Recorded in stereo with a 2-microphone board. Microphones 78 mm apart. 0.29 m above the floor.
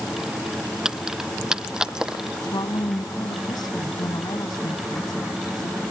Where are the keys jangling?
10° right (ahead or behind).